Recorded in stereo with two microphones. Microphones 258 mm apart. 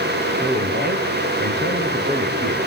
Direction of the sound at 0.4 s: 40° right (ahead or behind).